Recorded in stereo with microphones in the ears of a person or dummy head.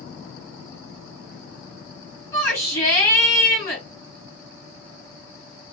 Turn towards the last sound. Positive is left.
turn(degrees=10)  # may be behind; listen again after turning